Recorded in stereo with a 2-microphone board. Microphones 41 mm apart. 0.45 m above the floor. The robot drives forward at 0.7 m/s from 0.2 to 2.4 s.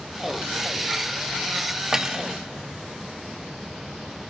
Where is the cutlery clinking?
10° right (ahead or behind), 0.5 m.